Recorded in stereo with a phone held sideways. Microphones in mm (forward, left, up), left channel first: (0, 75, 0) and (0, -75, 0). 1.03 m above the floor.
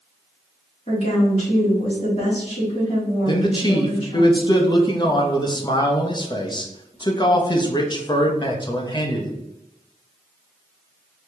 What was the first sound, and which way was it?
A woman speaking, 45° left (ahead or behind).